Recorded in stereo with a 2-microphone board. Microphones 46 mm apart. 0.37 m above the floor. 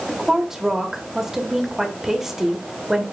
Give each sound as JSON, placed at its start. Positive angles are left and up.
{"t": 0.1, "sound": "a woman speaking", "side_deg": -10, "distance_m": 1.1}